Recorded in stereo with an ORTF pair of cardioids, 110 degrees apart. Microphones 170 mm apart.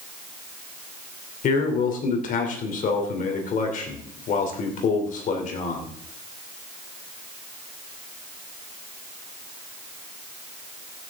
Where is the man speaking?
55° left, 3.5 m.